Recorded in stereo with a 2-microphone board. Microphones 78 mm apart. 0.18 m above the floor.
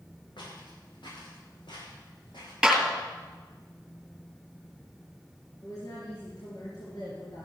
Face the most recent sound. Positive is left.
turn(degrees=55)  # may be behind; listen again after turning